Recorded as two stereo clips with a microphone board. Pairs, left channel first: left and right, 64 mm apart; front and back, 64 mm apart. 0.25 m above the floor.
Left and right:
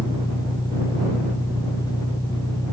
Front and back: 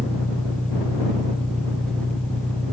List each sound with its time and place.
0.0 s an engine running: 80° left